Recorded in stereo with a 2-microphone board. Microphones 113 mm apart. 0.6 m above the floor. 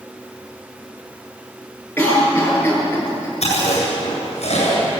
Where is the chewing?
75° left (ahead or behind), 8.5 m.